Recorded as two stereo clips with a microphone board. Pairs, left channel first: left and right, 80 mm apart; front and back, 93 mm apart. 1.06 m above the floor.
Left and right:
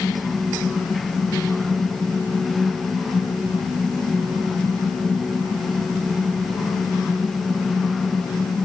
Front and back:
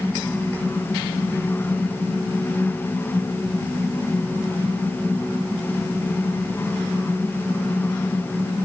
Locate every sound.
Only background noise.